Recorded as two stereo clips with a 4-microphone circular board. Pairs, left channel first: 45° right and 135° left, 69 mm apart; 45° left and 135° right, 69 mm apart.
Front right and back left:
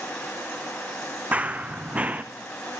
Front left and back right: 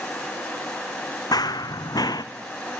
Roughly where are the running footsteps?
Ahead left.